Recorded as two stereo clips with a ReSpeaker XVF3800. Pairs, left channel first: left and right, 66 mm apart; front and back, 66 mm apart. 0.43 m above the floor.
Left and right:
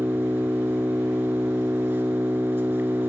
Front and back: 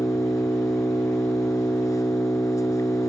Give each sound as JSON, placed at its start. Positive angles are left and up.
{"t": 0.0, "sound": "an engine running", "azimuth_deg": -35, "distance_m": 1.4}